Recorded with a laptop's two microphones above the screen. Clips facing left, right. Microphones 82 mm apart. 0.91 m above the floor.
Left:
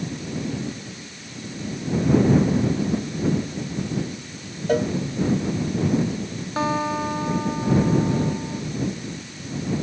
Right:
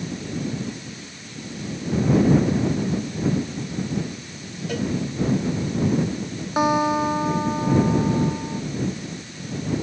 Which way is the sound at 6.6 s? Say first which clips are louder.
Right 4 dB; 15° right (ahead or behind).